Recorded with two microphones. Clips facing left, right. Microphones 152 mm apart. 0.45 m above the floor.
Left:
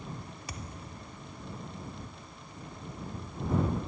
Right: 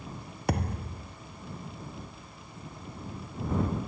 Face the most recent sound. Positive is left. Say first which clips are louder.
# right 17 dB
turn(degrees=-65)  # may be behind; listen again after turning